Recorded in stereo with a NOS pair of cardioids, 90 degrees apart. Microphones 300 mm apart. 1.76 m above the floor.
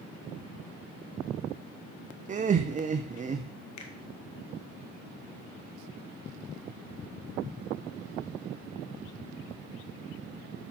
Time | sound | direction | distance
2.3 | laughter | 25° right | 0.6 m
3.8 | a finger snap | 70° left | 1.6 m